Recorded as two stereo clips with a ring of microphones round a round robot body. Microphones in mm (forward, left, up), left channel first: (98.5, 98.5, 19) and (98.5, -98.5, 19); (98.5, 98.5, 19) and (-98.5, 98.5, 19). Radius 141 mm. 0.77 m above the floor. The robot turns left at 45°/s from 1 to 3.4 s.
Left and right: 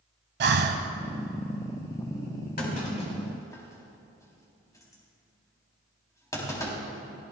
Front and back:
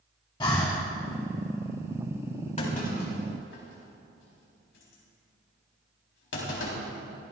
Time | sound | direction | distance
0.4 | breathing | 70° right | 1.0 m
2.6 | a clunk | 55° left | 4 m